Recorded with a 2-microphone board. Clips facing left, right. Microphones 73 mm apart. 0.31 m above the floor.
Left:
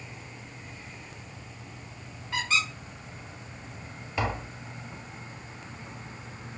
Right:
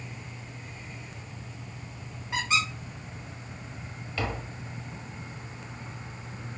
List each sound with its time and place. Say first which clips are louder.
2.3 s a squeak: right 1 dB; 20° right (ahead or behind), 1.7 m
4.2 s tapping: left 3 dB; 20° left (ahead or behind), 0.8 m